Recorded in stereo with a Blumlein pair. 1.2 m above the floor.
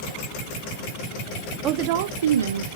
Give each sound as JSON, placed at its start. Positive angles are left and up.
{"t": 1.6, "sound": "a woman speaking", "azimuth_deg": -30, "distance_m": 0.7}